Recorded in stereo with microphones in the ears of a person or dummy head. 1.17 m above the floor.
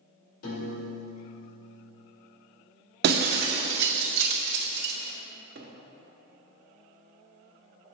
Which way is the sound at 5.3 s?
50° right (ahead or behind).